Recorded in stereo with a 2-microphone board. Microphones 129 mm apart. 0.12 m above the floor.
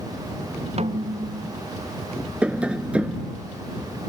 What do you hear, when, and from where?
0.8 s a snare drum: 55° right (ahead or behind)
2.4 s tapping: 10° right (ahead or behind)